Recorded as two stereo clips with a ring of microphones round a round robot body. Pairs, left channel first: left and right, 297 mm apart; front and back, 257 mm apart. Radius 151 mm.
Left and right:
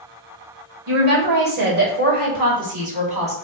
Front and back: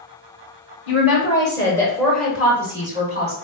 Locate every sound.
0.9 s a woman speaking: 55° right, 1.6 m; by 3.4 s 140° right, 1.4 m